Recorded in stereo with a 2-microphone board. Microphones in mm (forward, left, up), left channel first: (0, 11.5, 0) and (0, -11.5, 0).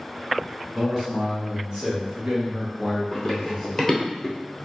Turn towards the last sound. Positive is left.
turn(degrees=5)  # may be behind; listen again after turning